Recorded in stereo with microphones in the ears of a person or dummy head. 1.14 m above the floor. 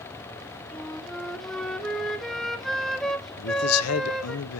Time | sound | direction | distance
0.7 | a flute | 5° left (ahead or behind) | 0.8 m
3.4 | a man speaking | 75° left (ahead or behind) | 0.6 m